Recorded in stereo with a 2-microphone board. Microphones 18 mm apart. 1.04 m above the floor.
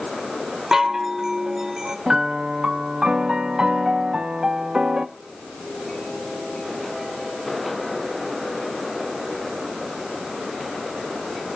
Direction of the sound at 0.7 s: 35° right (ahead or behind).